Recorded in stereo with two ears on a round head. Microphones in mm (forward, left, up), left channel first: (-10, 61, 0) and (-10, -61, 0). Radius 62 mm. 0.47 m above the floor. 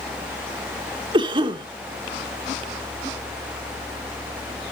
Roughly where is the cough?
Right.